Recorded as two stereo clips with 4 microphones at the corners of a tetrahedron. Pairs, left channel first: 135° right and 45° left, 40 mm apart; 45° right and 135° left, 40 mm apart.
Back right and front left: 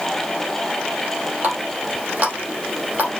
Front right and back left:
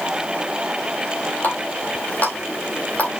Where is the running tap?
5° left, 3.5 m.